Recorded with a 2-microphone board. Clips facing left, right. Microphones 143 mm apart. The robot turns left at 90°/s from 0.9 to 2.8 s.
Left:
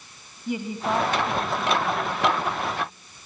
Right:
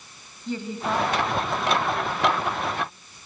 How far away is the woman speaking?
About 1.1 m.